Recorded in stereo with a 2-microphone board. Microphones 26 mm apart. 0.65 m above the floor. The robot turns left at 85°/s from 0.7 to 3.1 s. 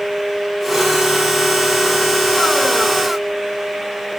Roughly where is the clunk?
I don't hear a clunk.